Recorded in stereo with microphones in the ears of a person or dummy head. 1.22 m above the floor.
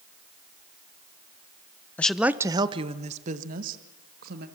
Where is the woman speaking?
10° left (ahead or behind), 0.8 m; by 4.5 s 60° right (ahead or behind), 2.5 m.